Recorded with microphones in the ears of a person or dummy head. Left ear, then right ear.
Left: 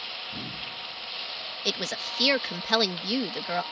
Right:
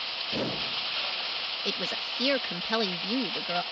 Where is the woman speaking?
15° left (ahead or behind).